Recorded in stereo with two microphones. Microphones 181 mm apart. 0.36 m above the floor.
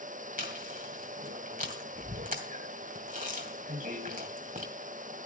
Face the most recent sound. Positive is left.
turn(degrees=-45)  # may be behind; listen again after turning